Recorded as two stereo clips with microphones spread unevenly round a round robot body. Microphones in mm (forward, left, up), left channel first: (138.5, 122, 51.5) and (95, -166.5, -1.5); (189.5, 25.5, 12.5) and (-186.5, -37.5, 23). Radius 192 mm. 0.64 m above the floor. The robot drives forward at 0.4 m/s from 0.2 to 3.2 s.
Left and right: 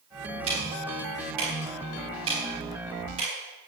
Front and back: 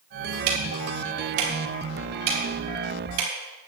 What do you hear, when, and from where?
0.5 s ticking: 170° right, 3.5 m; by 3.3 s 175° right, 4.5 m